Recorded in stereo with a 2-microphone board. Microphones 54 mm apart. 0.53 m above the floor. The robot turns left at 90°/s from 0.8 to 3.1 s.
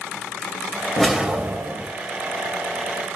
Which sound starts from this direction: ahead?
A whoosh, at 1.0 s.